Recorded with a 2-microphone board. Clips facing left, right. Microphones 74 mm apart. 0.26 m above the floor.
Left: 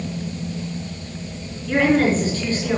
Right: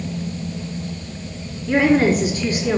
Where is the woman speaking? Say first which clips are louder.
Right 2 dB; 15° right (ahead or behind), 3.5 m.